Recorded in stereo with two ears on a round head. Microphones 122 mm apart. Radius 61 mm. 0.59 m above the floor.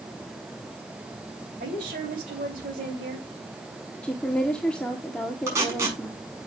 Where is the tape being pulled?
20° right (ahead or behind), 5.5 m.